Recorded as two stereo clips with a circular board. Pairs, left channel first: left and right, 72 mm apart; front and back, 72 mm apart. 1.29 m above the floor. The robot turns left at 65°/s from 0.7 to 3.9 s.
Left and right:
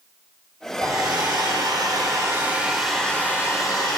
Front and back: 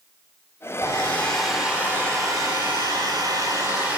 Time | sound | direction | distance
0.8 | a hair dryer | 45° right | 3.5 m